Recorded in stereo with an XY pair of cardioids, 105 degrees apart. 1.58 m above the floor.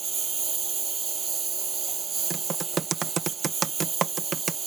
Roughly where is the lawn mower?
Ahead right.